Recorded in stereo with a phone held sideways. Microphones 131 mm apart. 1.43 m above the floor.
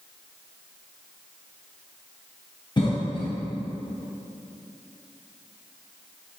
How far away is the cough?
About 0.9 m.